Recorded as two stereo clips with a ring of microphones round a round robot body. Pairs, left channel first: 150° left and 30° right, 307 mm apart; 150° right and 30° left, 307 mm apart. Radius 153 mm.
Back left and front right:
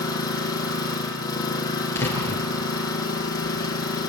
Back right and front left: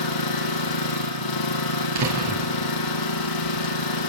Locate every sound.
0.0 s an engine running: 130° right, 5 m
1.9 s a door slam: 65° left, 6 m